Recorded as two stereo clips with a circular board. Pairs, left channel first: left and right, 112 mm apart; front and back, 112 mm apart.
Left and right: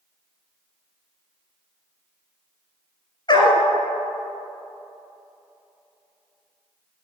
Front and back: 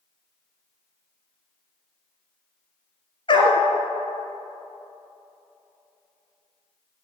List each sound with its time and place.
3.3 s a dog barking: 40° left, 1.3 m